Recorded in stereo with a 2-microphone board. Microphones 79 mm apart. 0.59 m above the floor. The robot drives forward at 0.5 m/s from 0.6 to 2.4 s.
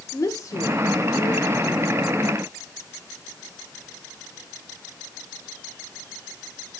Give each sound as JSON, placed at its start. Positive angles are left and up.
{"t": 0.1, "sound": "a woman speaking", "side_deg": 50, "distance_m": 1.4}